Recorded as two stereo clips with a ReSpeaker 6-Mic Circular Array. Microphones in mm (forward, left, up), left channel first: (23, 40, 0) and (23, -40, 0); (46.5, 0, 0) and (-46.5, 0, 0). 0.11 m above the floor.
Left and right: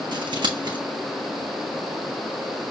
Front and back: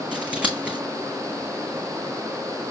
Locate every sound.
0.1 s scissors: 105° right, 1.4 m